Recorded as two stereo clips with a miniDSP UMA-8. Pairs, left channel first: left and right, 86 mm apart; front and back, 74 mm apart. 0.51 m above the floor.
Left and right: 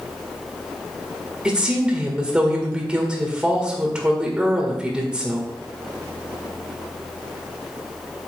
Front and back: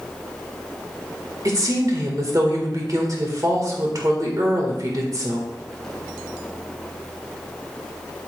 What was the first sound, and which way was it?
A woman speaking, 165° right.